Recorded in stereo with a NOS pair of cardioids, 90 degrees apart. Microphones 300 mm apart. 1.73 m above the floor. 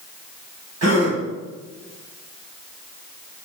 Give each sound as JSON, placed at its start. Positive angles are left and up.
{"t": 0.8, "sound": "a gasp", "azimuth_deg": -60, "distance_m": 3.5}